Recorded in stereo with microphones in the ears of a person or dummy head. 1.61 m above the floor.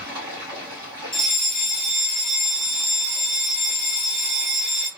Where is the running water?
15° right (ahead or behind), 2 m.